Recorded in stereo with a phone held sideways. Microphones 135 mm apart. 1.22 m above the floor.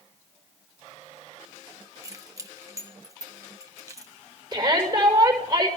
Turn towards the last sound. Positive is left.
turn(degrees=-30)  # may be behind; listen again after turning